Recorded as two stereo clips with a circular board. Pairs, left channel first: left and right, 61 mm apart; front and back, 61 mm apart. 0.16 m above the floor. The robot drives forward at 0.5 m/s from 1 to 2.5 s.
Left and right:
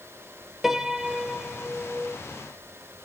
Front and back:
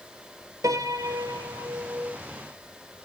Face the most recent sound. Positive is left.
turn(degrees=-175)